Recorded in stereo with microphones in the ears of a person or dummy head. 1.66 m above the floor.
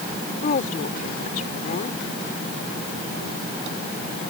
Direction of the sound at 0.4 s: 55° left (ahead or behind).